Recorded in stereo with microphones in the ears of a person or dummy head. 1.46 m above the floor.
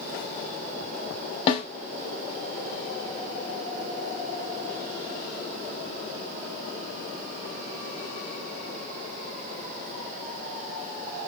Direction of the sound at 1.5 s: 35° left (ahead or behind).